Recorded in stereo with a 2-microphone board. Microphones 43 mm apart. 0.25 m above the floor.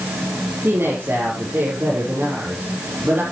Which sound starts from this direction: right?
A woman speaking, at 0.6 s.